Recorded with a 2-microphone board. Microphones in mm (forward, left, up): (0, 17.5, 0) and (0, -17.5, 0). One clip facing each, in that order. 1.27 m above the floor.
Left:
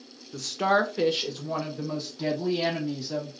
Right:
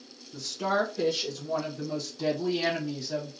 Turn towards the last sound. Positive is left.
turn(degrees=5)  # may be behind; listen again after turning